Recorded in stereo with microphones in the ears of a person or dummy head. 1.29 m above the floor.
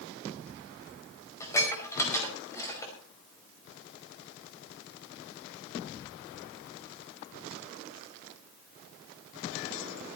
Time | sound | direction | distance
1.4 | dishes clattering | 15° left (ahead or behind) | 5 m